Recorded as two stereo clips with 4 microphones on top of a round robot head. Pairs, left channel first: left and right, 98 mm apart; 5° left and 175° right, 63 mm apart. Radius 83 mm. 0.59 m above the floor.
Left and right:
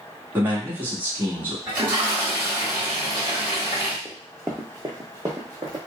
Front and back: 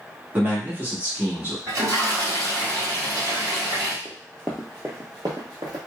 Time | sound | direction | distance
0.3 | a man speaking | 140° right | 1.4 m
1.7 | a toilet flushing | 160° right | 1.7 m
4.0 | running footsteps | 10° left | 0.6 m